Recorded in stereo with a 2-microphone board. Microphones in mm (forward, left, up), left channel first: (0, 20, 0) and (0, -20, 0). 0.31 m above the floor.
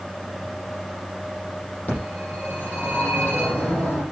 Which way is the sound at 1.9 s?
40° left (ahead or behind).